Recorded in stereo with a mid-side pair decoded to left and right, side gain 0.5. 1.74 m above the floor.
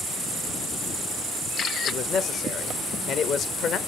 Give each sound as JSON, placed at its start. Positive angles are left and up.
{"t": 1.9, "sound": "a man speaking", "azimuth_deg": 60, "distance_m": 0.8}